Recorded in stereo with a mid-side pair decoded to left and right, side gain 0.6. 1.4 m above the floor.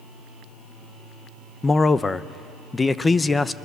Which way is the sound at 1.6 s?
20° left.